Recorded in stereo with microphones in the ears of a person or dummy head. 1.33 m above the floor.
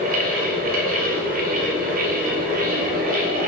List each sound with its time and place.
0.0 s a fan: 40° right (ahead or behind), 1.2 m